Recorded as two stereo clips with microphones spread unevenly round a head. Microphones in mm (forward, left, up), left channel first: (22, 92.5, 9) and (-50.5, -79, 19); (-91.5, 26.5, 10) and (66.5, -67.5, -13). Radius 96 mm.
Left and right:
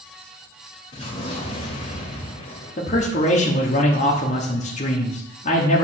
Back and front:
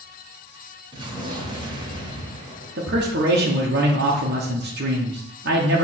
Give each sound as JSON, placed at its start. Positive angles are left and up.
{"t": 0.9, "sound": "an explosion", "azimuth_deg": 25, "distance_m": 1.5}
{"t": 2.8, "sound": "a man speaking", "azimuth_deg": 10, "distance_m": 1.0}